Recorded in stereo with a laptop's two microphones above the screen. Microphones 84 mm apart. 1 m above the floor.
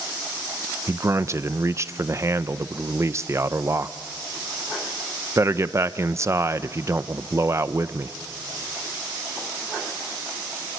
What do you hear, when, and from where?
0.9 s a man speaking: 35° right (ahead or behind), 0.5 m